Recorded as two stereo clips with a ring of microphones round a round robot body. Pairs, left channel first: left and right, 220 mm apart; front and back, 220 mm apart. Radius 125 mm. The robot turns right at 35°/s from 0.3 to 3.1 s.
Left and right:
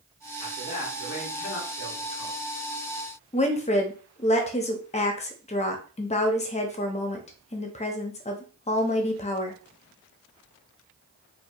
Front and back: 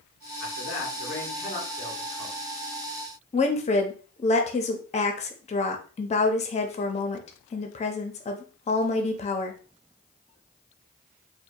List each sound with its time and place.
0.4 s a man speaking: 20° left, 1.9 m; by 2.4 s 90° left, 1.9 m
3.3 s a woman speaking: 45° left, 0.7 m